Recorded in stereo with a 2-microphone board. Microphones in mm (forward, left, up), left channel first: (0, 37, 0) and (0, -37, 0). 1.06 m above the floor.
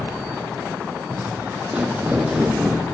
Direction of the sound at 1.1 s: 25° right (ahead or behind).